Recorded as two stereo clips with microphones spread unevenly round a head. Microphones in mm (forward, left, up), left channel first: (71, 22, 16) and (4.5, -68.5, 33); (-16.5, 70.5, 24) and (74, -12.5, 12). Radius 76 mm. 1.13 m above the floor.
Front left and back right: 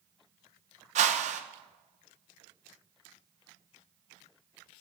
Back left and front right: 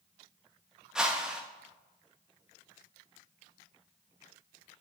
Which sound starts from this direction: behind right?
A whoosh, at 0.9 s.